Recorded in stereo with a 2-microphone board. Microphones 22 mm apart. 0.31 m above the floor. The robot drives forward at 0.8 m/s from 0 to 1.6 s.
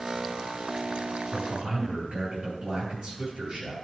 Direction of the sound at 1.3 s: 45° right (ahead or behind).